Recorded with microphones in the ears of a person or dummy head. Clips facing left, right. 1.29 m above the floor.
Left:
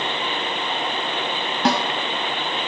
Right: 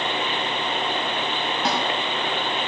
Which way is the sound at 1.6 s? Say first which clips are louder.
Left 6 dB; 60° left (ahead or behind).